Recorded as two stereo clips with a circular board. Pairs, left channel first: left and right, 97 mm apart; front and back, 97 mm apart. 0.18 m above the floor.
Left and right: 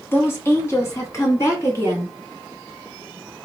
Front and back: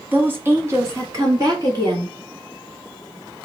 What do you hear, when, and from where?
0.1 s a woman speaking: 125° left, 1.1 m; by 2.1 s 140° left, 1.9 m